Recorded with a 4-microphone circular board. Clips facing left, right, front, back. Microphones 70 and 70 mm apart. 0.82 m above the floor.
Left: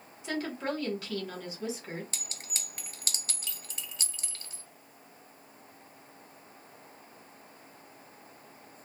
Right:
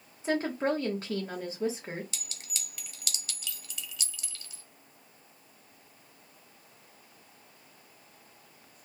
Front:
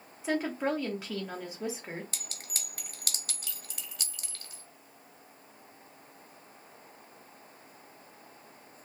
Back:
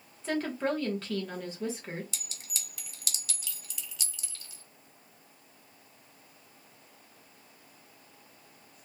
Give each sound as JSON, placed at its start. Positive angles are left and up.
{"t": 0.2, "sound": "a woman speaking", "azimuth_deg": -70, "distance_m": 0.9}
{"t": 2.1, "sound": "a clink", "azimuth_deg": 40, "distance_m": 0.8}